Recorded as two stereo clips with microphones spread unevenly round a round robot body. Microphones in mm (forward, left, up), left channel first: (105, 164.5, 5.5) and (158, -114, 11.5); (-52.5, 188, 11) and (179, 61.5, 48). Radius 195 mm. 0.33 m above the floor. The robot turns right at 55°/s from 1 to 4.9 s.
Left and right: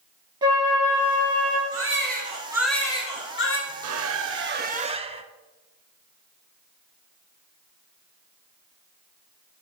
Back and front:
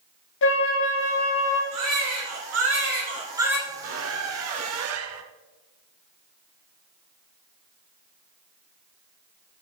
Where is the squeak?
80° right, 0.6 m; by 5.2 s 10° right, 0.6 m.